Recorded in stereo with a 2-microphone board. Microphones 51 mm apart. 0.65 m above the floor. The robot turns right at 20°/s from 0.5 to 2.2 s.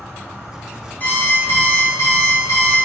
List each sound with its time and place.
0.0 s an insect: 80° right, 1.2 m; by 2.9 s 45° right, 1.2 m
1.0 s an alarm clock: 35° left (ahead or behind), 0.7 m; by 2.8 s 60° left (ahead or behind), 0.7 m